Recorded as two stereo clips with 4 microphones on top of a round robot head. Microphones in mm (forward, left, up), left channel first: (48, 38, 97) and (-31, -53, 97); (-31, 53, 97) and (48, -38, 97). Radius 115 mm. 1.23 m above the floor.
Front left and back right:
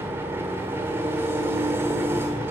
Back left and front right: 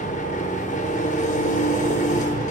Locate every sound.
0.0 s an engine running: 155° left, 1.7 m